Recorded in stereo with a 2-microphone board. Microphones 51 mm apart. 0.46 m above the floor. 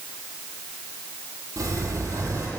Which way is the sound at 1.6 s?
85° right.